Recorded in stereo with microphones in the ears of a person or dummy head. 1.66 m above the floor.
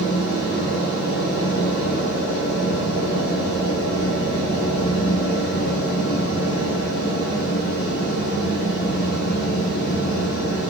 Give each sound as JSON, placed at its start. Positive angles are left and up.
{"t": 0.0, "sound": "a fan", "side_deg": 70, "distance_m": 2.5}